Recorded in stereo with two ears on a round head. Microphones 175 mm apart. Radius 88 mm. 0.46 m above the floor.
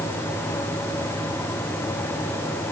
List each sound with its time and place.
Only background noise.